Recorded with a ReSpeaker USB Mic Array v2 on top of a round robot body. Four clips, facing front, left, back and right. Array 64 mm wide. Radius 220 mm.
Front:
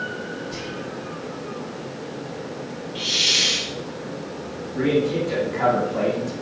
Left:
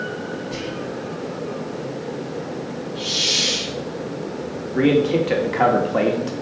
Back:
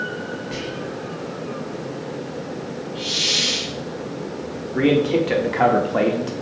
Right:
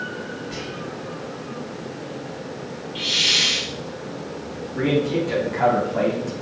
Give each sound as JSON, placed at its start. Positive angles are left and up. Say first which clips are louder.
{"t": 0.5, "sound": "whispering", "louder": "left 4 dB, back 3 dB", "azimuth_deg": -175, "distance_m": 2.5}
{"t": 3.0, "sound": "a hiss", "louder": "right 3 dB, front 2 dB", "azimuth_deg": -75, "distance_m": 1.3}
{"t": 4.8, "sound": "a man speaking", "louder": "left 4 dB, back 3 dB", "azimuth_deg": 140, "distance_m": 2.0}